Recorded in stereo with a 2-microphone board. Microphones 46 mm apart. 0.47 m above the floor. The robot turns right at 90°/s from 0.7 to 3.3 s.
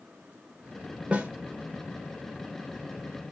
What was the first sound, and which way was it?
A snare drum, 25° right (ahead or behind).